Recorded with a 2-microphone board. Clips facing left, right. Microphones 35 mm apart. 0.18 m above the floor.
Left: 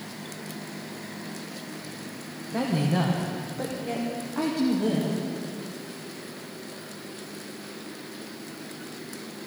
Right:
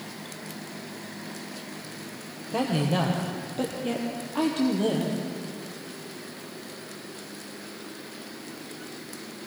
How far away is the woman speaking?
About 5.5 m.